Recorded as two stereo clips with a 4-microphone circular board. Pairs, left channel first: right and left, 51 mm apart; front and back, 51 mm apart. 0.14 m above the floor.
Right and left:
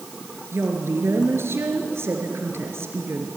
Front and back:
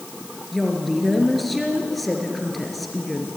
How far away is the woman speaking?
About 2.5 m.